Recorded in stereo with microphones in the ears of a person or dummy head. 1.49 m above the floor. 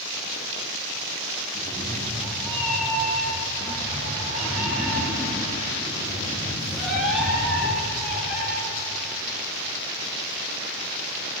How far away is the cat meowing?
About 7 m.